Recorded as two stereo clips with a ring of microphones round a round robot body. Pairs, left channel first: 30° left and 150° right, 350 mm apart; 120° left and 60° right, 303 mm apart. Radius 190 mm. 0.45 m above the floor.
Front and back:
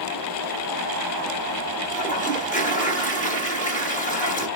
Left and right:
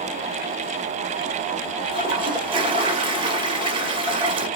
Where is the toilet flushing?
5° right, 1.3 m.